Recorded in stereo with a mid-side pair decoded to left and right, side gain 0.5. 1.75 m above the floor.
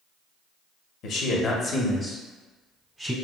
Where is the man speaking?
65° left, 0.8 m; by 3.1 s straight ahead, 1.3 m.